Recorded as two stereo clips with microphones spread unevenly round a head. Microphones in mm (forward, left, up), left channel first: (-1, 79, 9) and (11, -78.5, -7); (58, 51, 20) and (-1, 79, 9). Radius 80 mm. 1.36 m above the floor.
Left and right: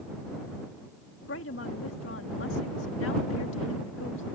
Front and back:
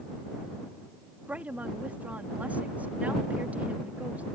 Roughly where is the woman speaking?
Left.